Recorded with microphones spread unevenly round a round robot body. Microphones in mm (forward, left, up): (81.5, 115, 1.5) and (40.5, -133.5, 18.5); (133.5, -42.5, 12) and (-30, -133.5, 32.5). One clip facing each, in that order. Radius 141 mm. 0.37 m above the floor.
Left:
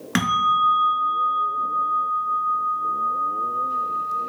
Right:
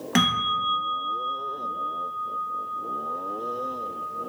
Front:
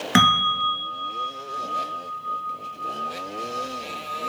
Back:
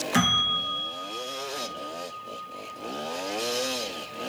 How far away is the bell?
About 1.2 m.